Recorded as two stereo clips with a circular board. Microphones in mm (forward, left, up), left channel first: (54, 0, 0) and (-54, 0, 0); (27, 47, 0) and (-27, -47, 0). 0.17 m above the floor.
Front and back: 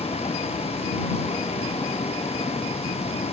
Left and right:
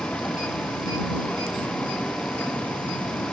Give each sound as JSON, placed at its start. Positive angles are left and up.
{"t": 0.0, "sound": "a vehicle", "azimuth_deg": -20}